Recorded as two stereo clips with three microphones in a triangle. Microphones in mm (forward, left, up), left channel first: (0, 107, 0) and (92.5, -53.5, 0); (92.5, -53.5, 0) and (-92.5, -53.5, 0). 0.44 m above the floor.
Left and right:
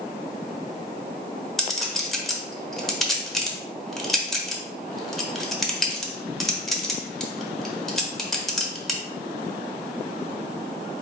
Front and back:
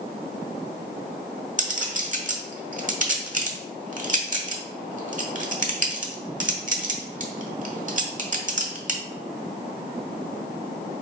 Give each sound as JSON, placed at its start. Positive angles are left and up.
{"t": 1.6, "sound": "a clink", "azimuth_deg": -150, "distance_m": 1.0}